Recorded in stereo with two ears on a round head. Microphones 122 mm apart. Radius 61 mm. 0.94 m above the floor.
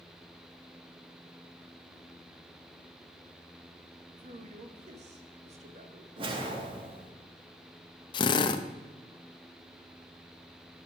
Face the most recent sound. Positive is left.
turn(degrees=35)  # may be behind; listen again after turning